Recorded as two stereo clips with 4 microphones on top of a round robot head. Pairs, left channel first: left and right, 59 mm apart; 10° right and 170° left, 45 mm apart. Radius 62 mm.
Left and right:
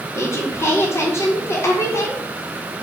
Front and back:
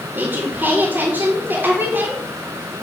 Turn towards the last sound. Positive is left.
turn(degrees=130)